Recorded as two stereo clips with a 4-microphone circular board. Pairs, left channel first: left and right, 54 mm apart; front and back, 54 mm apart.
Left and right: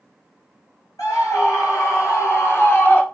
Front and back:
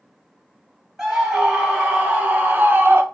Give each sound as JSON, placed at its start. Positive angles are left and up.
{"t": 1.0, "sound": "a scream", "azimuth_deg": 100, "distance_m": 4.5}